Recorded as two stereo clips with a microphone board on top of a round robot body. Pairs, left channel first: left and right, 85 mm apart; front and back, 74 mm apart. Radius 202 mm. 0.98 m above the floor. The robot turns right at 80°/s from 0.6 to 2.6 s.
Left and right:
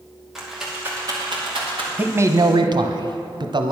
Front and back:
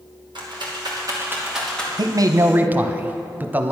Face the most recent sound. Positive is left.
turn(degrees=-115)